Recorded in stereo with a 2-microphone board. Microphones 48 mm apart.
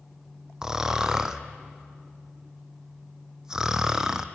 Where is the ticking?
I don't hear ticking.